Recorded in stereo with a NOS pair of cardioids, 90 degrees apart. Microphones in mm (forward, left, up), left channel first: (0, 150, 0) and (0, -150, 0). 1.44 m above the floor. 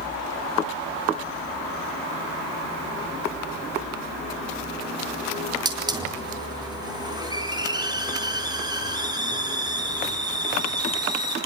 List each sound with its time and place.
5.7 s a hiss: 15° right, 4.5 m